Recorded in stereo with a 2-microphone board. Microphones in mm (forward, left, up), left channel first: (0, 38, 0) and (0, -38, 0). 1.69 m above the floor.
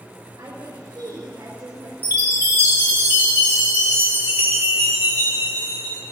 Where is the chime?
30° right (ahead or behind), 1.8 m.